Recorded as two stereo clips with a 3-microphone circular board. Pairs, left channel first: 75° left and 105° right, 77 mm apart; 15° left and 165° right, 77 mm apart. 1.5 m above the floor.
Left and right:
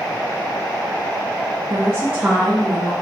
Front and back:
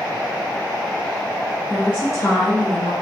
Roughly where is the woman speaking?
Right.